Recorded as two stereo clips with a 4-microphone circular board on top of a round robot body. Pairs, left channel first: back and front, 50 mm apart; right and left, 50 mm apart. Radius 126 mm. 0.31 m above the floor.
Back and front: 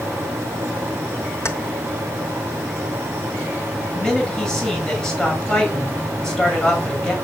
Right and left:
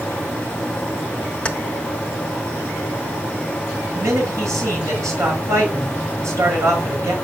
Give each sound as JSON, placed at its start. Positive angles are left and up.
{"t": 1.4, "sound": "keys jangling", "azimuth_deg": -160, "distance_m": 1.3}
{"t": 4.0, "sound": "a man speaking", "azimuth_deg": 105, "distance_m": 6.5}